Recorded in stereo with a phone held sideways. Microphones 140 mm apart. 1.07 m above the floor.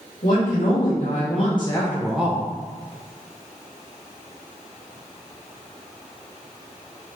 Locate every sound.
0.2 s a woman speaking: 70° left (ahead or behind), 1.3 m; by 2.5 s 25° right (ahead or behind), 0.6 m